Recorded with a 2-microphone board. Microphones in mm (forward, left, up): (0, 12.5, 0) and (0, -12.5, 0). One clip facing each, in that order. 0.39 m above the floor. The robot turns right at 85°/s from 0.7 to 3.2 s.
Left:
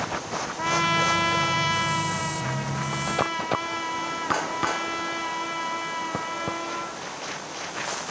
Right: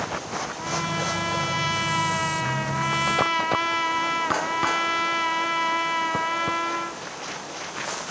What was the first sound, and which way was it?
A trumpet, 90° left.